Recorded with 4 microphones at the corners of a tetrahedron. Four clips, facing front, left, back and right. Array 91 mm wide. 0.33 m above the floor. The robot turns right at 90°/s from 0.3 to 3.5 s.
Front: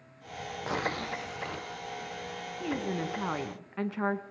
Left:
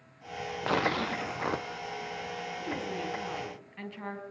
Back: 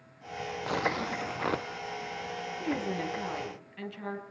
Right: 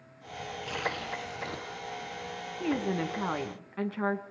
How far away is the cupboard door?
I don't hear a cupboard door.